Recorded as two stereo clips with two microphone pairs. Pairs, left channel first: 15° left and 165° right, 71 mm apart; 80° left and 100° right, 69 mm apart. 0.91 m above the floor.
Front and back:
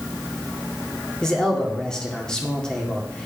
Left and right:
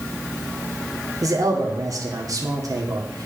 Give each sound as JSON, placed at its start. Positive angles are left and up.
{"t": 1.2, "sound": "a man speaking", "azimuth_deg": -65, "distance_m": 2.0}